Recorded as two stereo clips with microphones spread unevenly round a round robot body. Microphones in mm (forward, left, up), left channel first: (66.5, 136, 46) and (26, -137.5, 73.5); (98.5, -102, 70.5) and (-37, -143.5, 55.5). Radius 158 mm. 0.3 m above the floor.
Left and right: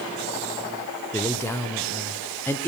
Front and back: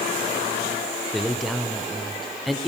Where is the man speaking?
125° left, 1.0 m.